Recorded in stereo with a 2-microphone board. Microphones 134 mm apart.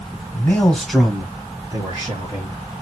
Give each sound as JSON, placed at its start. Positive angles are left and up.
{"t": 0.3, "sound": "a man speaking", "side_deg": 20, "distance_m": 1.2}